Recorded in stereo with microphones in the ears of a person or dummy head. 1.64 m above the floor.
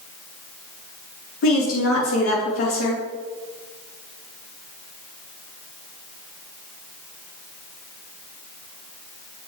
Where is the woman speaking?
75° left (ahead or behind), 3.5 m.